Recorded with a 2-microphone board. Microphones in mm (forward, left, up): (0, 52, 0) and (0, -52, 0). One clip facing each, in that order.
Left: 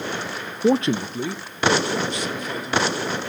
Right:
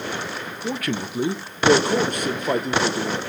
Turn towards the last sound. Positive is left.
turn(degrees=-55)  # may be behind; listen again after turning